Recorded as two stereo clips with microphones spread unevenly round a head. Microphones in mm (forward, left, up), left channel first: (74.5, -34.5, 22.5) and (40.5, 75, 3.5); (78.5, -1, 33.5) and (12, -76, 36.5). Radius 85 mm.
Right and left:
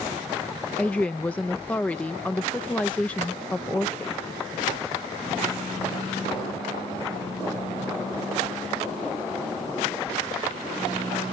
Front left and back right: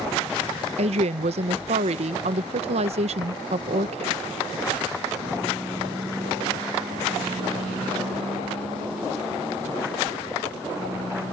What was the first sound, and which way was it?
A woman speaking, 155° right.